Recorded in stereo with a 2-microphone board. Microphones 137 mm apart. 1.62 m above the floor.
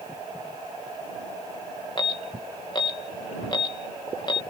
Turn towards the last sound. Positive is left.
turn(degrees=35)  # may be behind; listen again after turning